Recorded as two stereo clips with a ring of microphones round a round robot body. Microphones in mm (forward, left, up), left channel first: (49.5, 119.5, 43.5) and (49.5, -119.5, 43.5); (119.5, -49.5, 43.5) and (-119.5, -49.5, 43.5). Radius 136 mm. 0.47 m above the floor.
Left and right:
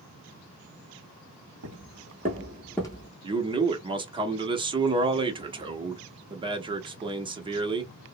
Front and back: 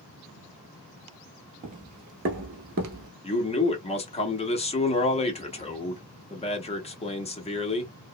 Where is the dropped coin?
I don't hear a dropped coin.